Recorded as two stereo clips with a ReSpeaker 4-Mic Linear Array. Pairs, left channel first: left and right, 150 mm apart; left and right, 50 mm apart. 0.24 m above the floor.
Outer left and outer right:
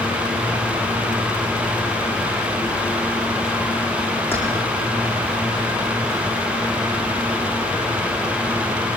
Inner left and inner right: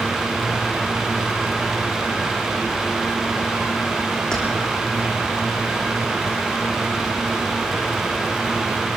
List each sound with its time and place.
4.3 s keys jangling: 15° left (ahead or behind), 8 m